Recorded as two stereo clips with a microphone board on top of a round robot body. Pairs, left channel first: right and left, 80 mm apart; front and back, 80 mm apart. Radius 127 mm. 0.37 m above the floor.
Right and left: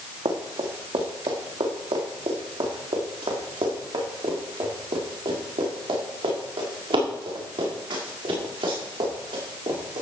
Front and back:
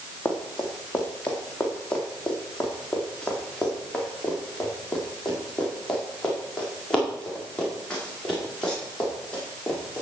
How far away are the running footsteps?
About 2.5 m.